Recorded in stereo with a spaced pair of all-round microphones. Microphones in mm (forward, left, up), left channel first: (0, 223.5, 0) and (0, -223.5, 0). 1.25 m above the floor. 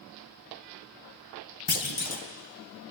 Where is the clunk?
85° left, 0.9 m.